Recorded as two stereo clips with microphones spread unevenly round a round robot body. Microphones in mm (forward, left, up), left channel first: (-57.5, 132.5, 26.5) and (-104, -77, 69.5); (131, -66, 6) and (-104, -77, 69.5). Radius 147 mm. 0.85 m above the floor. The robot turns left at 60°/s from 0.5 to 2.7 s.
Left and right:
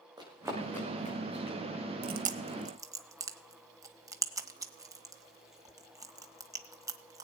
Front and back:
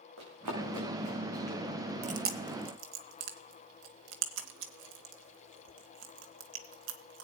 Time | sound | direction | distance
0.2 | running footsteps | 175° right | 4 m
2.0 | chewing | 130° right | 1.0 m